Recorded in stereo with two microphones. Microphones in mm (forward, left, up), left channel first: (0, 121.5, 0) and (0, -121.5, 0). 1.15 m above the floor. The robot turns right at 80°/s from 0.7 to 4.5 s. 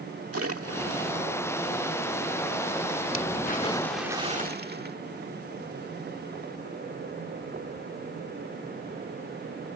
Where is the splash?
75° right (ahead or behind); by 5.0 s 40° right (ahead or behind).